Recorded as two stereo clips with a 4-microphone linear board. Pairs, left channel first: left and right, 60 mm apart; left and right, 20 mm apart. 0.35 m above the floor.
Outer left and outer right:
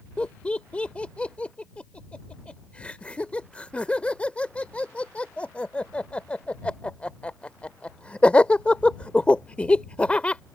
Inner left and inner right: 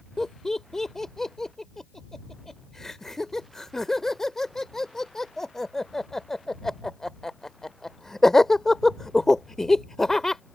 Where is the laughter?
20° left (ahead or behind).